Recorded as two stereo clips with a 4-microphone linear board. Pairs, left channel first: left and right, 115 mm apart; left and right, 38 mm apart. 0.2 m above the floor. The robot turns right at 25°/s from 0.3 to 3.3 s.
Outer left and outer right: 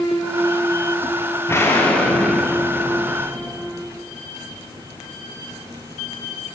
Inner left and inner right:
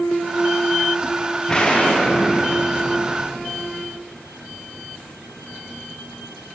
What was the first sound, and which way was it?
An explosion, 155° left.